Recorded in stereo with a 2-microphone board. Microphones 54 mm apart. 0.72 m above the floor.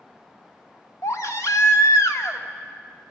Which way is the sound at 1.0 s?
70° left (ahead or behind).